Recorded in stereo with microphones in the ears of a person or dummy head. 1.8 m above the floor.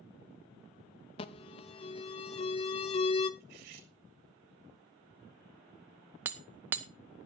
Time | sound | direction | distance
1.2 | an alarm | 30° left (ahead or behind) | 0.7 m
3.4 | cutlery clinking | 60° right (ahead or behind) | 2.5 m
6.2 | hammering | 10° right (ahead or behind) | 0.5 m